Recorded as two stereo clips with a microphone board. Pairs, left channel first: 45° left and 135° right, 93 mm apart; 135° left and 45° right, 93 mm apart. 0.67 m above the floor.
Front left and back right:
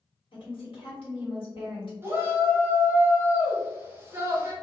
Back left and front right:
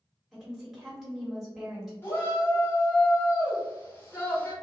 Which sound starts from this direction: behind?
A shout, at 2.0 s.